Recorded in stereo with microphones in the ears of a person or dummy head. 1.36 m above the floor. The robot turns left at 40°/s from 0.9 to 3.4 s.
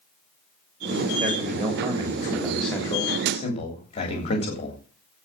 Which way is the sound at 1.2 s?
125° right.